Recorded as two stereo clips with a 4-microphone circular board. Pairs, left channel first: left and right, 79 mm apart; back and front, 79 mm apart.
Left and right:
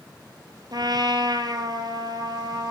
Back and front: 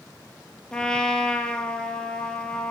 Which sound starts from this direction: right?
A trumpet, at 0.7 s.